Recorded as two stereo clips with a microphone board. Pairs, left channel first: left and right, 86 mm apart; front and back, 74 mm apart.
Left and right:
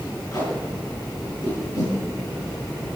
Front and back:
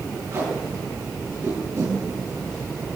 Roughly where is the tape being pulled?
Behind left.